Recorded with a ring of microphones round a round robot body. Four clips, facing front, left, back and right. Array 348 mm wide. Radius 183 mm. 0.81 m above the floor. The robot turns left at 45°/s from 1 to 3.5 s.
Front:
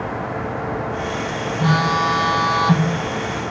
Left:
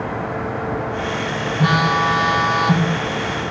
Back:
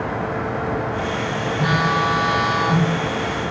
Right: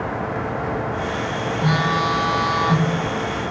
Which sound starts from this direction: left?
A phone buzzing, at 1.6 s.